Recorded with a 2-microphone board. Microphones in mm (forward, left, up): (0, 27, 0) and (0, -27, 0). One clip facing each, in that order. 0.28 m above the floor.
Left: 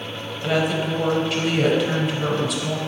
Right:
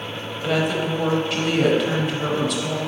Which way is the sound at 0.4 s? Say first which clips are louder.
Even; centre (ahead or behind).